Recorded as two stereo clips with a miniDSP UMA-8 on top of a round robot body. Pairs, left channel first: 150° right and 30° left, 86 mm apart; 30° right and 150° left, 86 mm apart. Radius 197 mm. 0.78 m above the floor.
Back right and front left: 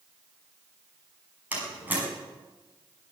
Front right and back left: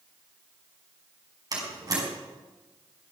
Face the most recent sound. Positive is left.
turn(degrees=100)